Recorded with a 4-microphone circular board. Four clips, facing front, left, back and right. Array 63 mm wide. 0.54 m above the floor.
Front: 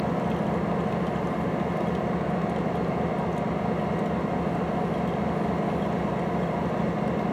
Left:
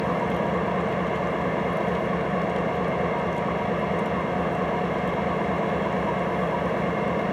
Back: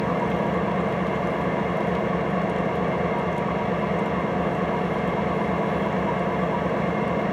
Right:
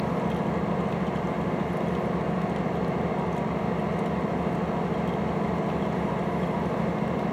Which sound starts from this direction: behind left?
An engine running, at 0.0 s.